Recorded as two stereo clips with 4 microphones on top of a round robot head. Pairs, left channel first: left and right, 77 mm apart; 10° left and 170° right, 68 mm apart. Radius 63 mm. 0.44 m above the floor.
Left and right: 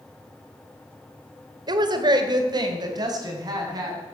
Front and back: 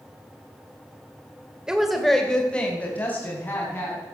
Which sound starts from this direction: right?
A woman speaking, at 1.7 s.